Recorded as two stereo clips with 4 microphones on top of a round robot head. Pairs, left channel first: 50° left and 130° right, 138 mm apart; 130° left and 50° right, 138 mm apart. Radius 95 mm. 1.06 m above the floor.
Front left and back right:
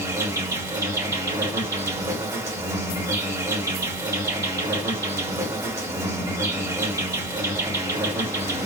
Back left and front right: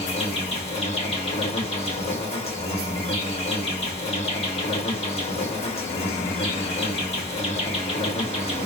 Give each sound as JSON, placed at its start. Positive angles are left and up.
{"t": 0.0, "sound": "an insect", "azimuth_deg": 165, "distance_m": 1.3}